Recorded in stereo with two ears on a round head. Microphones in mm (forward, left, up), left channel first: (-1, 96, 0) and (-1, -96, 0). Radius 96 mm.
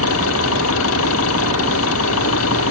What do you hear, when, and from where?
0.0 s an engine running: 75° left (ahead or behind)